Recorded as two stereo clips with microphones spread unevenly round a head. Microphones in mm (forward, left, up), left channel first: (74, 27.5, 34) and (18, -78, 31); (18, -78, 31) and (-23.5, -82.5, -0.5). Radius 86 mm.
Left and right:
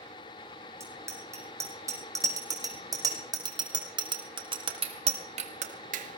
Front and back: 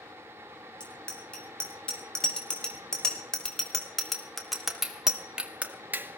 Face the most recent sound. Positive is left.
turn(degrees=-125)